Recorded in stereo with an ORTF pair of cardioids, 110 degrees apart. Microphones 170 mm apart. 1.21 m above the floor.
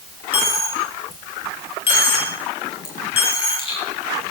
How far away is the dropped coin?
About 5 m.